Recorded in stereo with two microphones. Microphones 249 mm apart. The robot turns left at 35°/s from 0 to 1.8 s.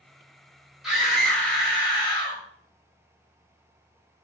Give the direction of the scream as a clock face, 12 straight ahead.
6 o'clock.